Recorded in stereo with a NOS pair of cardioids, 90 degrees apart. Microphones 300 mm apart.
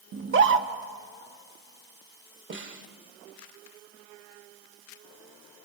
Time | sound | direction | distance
0.1 | a scream | 40° right | 1.6 m
2.5 | a snare drum | 40° right | 2 m